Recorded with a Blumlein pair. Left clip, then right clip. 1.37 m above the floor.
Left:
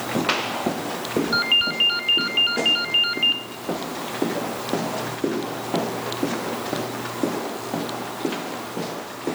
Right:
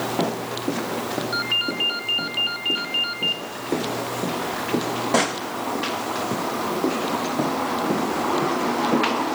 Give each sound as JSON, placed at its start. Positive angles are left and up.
{"t": 1.3, "sound": "a ringtone", "azimuth_deg": 15, "distance_m": 1.8}